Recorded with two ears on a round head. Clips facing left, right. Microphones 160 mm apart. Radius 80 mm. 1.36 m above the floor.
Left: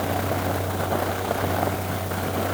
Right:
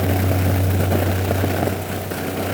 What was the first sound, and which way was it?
Only background noise.